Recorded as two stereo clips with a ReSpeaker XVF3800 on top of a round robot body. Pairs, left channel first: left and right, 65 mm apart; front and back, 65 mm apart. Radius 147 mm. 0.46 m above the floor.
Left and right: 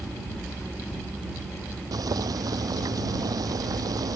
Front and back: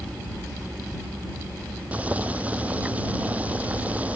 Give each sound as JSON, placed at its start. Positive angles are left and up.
{"t": 1.9, "sound": "boiling", "azimuth_deg": -110}